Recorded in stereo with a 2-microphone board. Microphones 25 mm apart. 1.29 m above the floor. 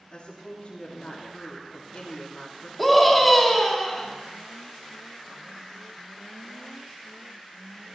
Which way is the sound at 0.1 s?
55° left (ahead or behind).